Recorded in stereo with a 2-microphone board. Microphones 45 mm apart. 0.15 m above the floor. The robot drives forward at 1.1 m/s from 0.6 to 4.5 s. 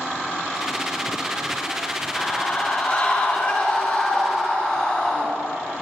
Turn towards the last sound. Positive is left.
turn(degrees=25)  # may be behind; listen again after turning